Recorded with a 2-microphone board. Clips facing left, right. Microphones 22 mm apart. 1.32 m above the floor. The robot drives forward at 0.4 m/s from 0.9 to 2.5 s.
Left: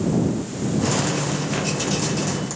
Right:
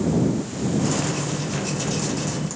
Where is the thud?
I don't hear a thud.